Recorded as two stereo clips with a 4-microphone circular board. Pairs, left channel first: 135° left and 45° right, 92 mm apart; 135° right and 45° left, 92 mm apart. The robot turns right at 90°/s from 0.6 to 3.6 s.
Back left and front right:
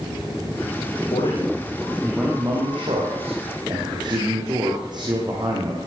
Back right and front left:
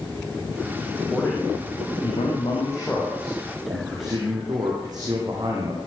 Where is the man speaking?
135° left, 7.5 m; by 5.8 s 5° right, 7.5 m.